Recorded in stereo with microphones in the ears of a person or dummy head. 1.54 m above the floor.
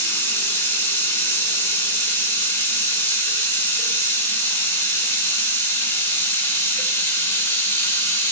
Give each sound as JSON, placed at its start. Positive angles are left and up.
{"t": 0.0, "sound": "running water", "side_deg": 15, "distance_m": 1.6}